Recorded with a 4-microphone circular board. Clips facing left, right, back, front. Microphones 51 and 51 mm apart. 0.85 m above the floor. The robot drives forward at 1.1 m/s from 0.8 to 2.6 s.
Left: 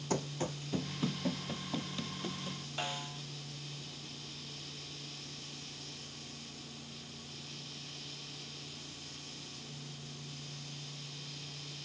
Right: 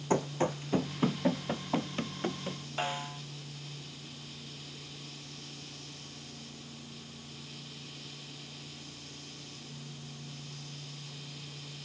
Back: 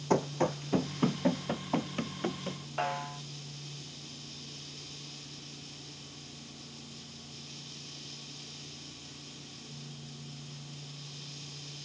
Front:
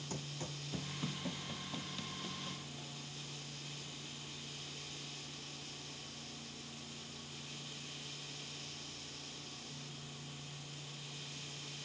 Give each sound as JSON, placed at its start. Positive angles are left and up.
{"t": 0.1, "sound": "running footsteps", "azimuth_deg": -155}
{"t": 2.8, "sound": "a snare drum", "azimuth_deg": -160}